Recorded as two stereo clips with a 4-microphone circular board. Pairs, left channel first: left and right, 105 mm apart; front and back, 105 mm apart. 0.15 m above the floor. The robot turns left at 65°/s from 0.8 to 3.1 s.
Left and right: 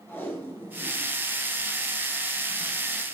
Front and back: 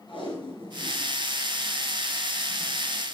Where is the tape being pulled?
25° left, 3 m; by 2.8 s 105° right, 3 m.